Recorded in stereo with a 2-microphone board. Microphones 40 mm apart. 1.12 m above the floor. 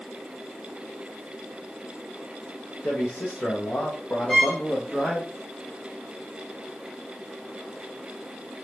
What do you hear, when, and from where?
2.8 s a man speaking: 75° left (ahead or behind), 0.9 m; by 5.3 s 15° left (ahead or behind), 1.3 m
4.3 s a violin: 20° left (ahead or behind), 1.9 m